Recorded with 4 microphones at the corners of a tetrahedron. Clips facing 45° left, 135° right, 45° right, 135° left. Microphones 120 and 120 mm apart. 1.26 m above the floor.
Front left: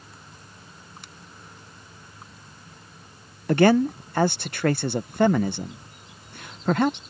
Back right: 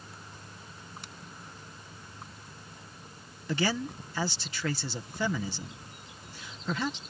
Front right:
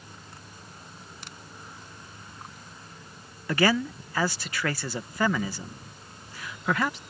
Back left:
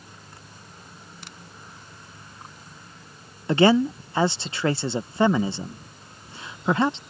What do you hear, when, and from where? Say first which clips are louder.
3.5 s a man speaking: front left 13 dB, back left 7 dB; 75° left